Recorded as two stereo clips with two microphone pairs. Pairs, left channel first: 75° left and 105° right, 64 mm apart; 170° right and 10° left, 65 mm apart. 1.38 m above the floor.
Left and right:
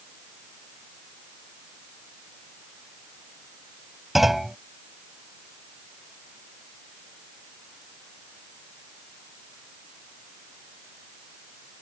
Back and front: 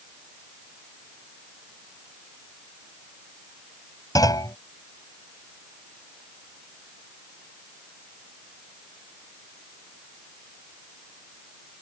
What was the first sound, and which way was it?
A clunk, 170° left.